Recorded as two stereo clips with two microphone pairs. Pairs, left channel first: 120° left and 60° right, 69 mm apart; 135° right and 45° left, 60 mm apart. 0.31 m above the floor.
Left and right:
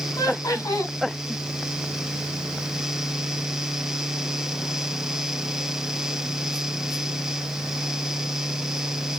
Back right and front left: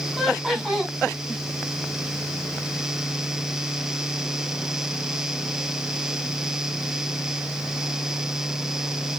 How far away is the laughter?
About 2.5 m.